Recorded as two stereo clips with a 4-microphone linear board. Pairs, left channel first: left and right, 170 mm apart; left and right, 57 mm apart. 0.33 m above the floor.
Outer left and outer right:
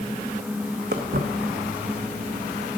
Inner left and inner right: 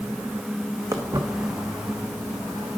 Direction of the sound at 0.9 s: 75° right (ahead or behind).